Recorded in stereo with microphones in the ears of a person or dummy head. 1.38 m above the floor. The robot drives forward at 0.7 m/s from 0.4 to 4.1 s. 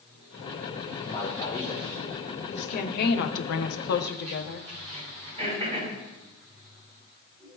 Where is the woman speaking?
40° left (ahead or behind), 0.9 m; by 4.7 s 50° left (ahead or behind), 0.7 m.